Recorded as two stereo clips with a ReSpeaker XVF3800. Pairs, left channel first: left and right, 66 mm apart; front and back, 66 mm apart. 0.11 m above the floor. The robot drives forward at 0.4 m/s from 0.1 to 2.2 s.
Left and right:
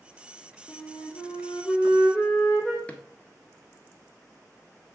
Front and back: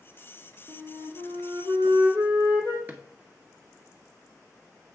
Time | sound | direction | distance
0.7 | a flute | 160° left | 2.5 m
2.9 | a drawer | 145° left | 1.1 m